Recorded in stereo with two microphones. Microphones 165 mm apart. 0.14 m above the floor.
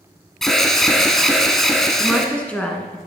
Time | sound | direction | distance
0.4 | an alarm | centre (ahead or behind) | 0.9 m
2.0 | a woman speaking | 5° left (ahead or behind) | 1.2 m